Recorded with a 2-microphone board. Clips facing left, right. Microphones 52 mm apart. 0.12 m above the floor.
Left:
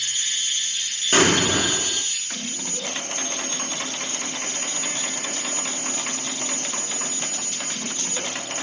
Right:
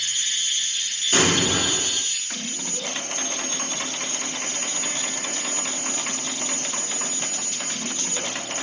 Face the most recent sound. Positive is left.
turn(degrees=35)  # may be behind; listen again after turning